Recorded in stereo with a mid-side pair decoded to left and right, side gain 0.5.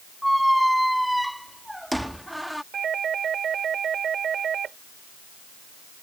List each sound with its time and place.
0.2 s a squeak: straight ahead
2.7 s a doorbell: 45° right